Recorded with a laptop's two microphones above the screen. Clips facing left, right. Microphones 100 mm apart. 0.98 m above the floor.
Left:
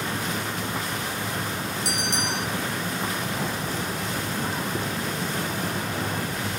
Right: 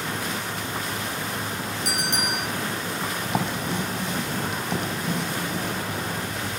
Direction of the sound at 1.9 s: 50° right (ahead or behind).